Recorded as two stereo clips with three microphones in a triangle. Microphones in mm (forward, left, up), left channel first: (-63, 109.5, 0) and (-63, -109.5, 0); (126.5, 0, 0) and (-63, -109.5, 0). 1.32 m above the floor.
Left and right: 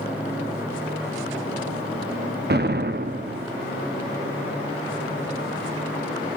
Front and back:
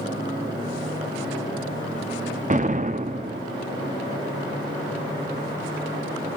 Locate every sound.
2.5 s an explosion: 105° right, 1.0 m